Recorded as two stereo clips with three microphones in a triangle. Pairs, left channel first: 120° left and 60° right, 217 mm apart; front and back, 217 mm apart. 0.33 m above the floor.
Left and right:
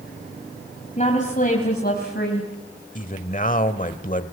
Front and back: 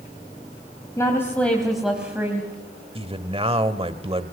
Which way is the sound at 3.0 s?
135° left.